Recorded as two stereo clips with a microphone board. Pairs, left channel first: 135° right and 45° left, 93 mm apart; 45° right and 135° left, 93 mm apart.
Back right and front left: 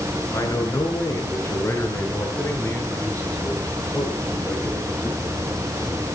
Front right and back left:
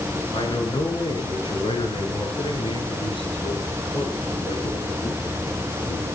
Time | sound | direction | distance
0.3 | a man speaking | 80° right | 7.5 m